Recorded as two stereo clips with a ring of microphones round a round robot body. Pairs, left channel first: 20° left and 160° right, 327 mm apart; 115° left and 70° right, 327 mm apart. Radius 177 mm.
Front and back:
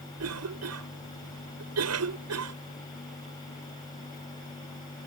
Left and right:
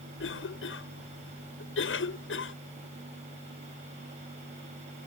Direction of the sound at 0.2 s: 165° left.